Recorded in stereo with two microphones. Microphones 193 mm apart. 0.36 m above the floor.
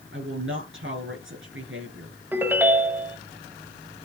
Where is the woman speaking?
75° right (ahead or behind), 6.5 m.